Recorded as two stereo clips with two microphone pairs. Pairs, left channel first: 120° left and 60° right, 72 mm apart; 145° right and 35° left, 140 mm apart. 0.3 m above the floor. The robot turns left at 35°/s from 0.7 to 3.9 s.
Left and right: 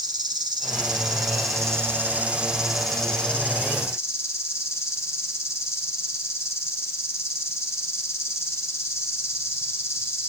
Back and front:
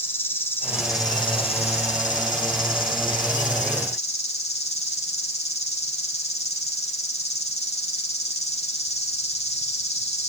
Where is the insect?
75° right, 1.8 m; by 10.3 s 175° left, 1.8 m.